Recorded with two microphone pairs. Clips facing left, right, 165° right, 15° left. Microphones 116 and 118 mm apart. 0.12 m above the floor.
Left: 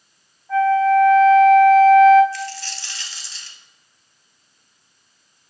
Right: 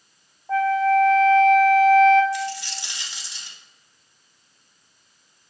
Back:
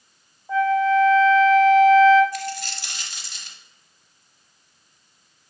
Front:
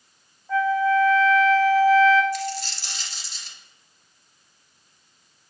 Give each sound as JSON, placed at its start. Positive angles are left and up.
{"t": 0.5, "sound": "a flute", "azimuth_deg": -115, "distance_m": 1.2}
{"t": 2.3, "sound": "a dropped coin", "azimuth_deg": -165, "distance_m": 1.2}